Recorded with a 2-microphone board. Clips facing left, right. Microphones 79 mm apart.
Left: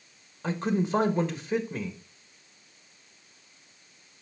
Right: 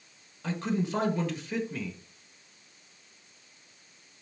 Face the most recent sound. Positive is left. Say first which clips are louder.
# left 3 dB
turn(degrees=25)  # may be behind; listen again after turning